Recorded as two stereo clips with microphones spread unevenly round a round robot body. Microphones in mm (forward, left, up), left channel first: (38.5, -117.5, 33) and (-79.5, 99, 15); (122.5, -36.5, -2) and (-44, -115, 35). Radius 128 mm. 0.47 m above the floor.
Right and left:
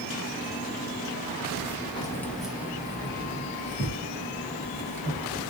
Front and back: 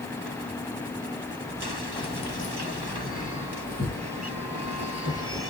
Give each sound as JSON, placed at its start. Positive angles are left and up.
{"t": 2.0, "sound": "keys jangling", "azimuth_deg": 10, "distance_m": 0.8}